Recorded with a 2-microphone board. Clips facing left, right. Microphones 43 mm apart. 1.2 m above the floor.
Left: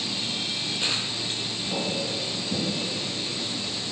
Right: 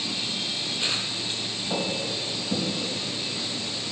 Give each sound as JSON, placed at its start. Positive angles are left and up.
{"t": 1.7, "sound": "footsteps", "side_deg": -60, "distance_m": 3.0}